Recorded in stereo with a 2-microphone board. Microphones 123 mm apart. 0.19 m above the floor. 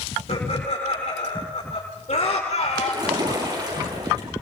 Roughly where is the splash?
Right.